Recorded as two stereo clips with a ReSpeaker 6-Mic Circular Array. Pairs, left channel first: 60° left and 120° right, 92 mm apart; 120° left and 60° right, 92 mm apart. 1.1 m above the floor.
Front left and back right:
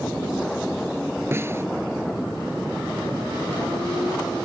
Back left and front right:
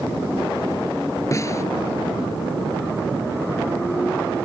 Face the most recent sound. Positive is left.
turn(degrees=175)